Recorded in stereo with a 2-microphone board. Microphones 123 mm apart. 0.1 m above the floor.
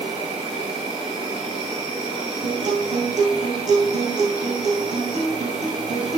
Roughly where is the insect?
Right.